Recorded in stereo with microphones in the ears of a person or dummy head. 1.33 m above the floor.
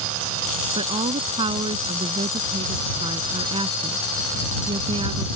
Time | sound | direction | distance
0.8 | a woman speaking | 25° right (ahead or behind) | ?